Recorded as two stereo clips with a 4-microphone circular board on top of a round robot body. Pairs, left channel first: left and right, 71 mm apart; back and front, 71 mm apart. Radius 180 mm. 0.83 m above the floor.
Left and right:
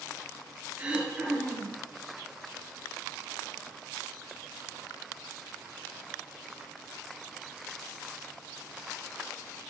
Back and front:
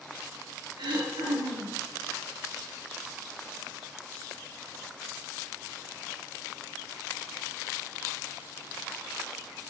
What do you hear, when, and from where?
0.8 s throat clearing: 15° right, 2.5 m